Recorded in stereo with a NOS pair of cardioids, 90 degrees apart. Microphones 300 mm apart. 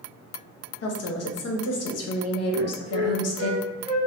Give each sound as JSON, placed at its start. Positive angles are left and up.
{"t": 0.8, "sound": "a woman speaking", "azimuth_deg": 55, "distance_m": 1.1}
{"t": 2.5, "sound": "a flute", "azimuth_deg": -65, "distance_m": 1.0}